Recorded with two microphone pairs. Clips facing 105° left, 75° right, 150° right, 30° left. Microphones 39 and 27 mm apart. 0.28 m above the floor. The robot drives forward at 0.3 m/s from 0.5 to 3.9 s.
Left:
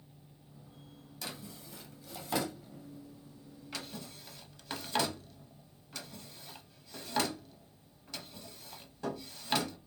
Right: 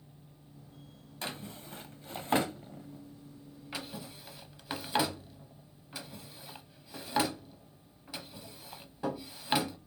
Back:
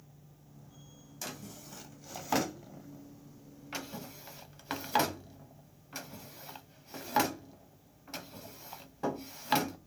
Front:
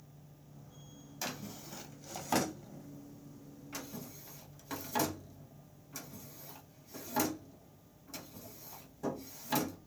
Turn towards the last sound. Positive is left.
turn(degrees=-140)